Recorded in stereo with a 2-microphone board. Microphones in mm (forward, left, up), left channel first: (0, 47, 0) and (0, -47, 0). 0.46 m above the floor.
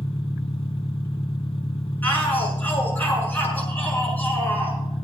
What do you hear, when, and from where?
0.0 s an engine running: 80° left, 0.9 m
2.0 s a shout: 20° left (ahead or behind), 5.5 m